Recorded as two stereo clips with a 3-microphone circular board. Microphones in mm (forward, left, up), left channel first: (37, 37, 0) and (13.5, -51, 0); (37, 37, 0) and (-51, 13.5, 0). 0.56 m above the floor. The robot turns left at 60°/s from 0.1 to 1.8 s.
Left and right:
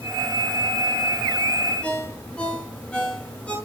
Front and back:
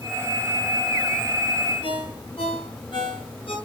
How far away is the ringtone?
About 5.5 m.